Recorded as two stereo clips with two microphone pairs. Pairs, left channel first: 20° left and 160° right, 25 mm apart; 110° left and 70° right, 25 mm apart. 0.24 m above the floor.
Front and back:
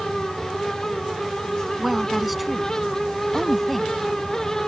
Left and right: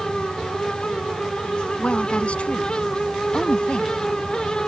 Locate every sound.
1.8 s a woman speaking: 120° left; by 3.9 s 100° left